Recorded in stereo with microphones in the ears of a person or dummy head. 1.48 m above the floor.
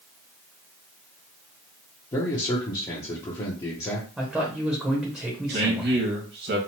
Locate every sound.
2.1 s a man speaking: 20° left (ahead or behind), 0.6 m
4.2 s a man speaking: 10° right (ahead or behind), 0.7 m
5.5 s a man speaking: 60° right (ahead or behind), 1.4 m